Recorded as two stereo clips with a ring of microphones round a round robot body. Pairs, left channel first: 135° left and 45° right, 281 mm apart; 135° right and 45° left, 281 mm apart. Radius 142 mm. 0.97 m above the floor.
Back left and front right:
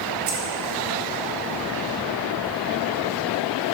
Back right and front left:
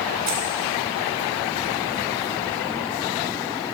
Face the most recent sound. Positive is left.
turn(degrees=10)